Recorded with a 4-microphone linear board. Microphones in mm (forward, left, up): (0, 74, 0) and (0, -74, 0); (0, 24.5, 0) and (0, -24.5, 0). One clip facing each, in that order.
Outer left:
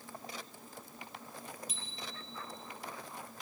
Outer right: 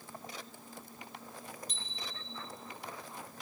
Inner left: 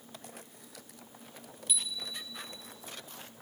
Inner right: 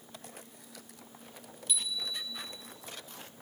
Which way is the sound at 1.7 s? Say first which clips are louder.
Even, inner right 2 dB; 5° left (ahead or behind).